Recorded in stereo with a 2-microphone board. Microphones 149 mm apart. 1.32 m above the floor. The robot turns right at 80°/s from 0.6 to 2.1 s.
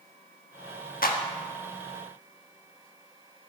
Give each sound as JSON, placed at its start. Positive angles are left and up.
{"t": 1.0, "sound": "a clap", "side_deg": 75, "distance_m": 1.5}